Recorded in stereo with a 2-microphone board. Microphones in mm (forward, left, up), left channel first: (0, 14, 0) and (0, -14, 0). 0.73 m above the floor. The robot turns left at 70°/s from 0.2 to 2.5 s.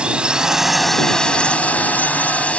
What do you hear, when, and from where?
0.0 s a drone: 140° right; by 2.6 s 60° left